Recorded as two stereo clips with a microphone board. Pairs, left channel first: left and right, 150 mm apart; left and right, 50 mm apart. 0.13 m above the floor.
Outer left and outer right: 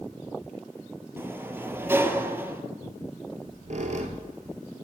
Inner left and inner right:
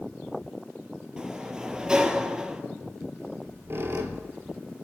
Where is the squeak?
50° right (ahead or behind), 1.0 m.